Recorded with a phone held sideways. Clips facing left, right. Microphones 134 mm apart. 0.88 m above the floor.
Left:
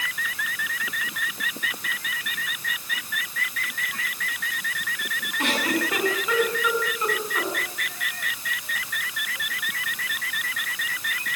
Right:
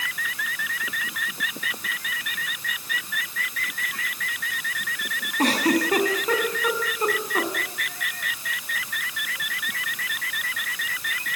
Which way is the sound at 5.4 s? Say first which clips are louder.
Right 5 dB; 40° right (ahead or behind).